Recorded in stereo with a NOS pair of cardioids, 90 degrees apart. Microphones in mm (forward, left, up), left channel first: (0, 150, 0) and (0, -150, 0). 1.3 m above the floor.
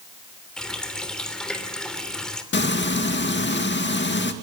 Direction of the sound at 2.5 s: 40° left.